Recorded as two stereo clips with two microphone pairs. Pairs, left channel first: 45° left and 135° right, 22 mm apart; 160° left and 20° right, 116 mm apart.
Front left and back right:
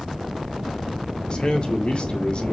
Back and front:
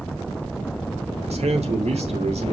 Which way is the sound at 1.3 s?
5° left.